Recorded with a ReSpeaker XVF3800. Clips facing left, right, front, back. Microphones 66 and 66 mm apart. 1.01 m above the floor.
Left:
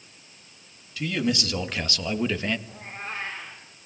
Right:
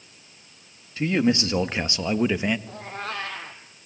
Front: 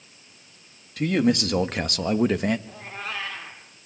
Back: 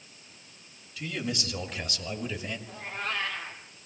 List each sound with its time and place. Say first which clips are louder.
1.0 s a man speaking: right 5 dB, front 13 dB; 30° right, 2 m; by 2.6 s 15° right, 1.4 m
2.7 s a cat meowing: right 4 dB, even; 85° right, 3.5 m